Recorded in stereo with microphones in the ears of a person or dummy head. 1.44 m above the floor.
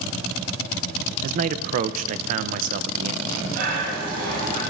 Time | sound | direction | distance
1.2 | a man speaking | 40° right (ahead or behind) | 0.7 m
3.2 | breathing | 60° right (ahead or behind) | 7.5 m